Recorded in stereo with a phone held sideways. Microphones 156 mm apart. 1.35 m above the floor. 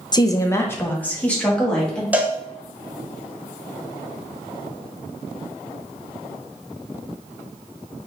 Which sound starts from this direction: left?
A woman speaking, at 0.1 s.